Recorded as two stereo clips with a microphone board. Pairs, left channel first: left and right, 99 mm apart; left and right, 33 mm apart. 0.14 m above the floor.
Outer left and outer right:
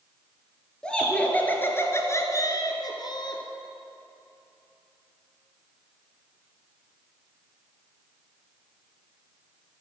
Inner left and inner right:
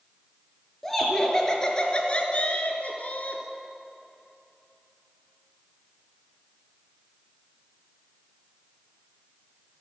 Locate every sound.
0.8 s laughter: 10° left (ahead or behind), 2 m; by 3.4 s 50° left (ahead or behind), 1.7 m